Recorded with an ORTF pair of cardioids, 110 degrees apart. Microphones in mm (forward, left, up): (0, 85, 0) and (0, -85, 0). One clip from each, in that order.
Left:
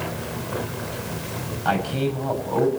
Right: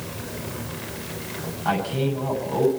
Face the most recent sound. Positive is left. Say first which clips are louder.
# left 1 dB
turn(degrees=20)